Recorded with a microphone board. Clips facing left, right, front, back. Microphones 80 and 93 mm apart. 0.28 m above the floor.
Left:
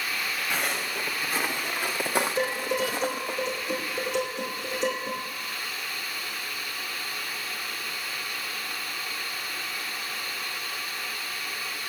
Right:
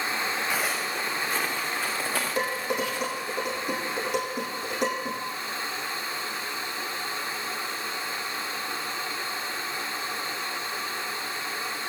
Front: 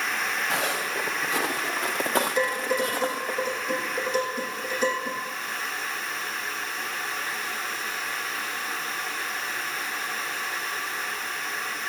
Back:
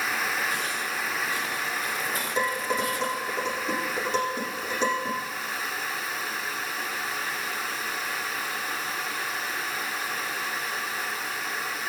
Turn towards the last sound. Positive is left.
turn(degrees=-115)